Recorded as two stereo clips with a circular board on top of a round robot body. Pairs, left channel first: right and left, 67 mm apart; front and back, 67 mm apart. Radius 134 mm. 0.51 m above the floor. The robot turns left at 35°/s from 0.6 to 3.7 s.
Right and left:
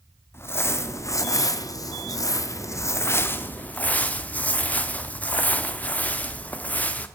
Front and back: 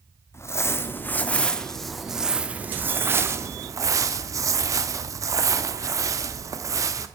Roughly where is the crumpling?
Ahead right.